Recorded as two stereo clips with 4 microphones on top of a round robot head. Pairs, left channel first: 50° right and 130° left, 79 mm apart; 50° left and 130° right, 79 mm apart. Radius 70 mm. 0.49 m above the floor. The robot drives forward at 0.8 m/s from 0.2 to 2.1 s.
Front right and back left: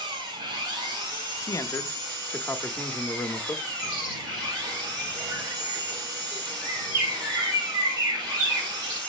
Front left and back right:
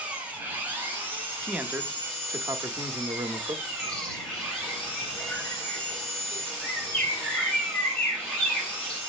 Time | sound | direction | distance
0.0 | an engine running | 155° left | 1.6 m
1.4 | a man speaking | 55° right | 0.8 m
3.8 | a bird | 125° left | 2.5 m